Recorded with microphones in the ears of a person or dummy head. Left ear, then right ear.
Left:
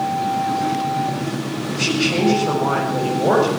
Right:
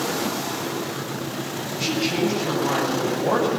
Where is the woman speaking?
25° left (ahead or behind), 8.5 m.